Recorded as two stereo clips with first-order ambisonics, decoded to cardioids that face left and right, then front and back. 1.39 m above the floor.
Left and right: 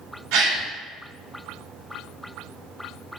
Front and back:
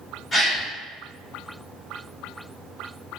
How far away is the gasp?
About 1.3 m.